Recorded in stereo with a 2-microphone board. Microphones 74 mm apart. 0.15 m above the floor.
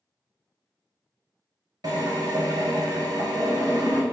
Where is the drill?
65° right (ahead or behind), 0.9 m.